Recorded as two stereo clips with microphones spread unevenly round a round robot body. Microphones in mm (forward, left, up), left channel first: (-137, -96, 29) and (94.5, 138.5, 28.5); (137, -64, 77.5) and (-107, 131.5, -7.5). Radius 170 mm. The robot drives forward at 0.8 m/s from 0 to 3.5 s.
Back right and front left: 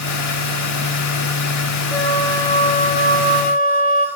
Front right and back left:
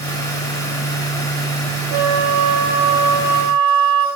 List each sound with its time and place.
1.9 s a flute: 140° left, 1.5 m; by 4.1 s 160° left, 2.5 m